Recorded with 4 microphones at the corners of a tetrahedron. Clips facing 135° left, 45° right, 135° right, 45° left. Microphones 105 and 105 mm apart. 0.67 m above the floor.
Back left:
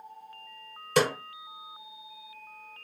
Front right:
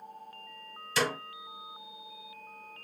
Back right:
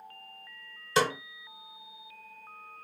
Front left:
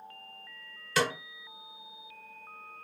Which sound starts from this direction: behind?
A snare drum, at 1.0 s.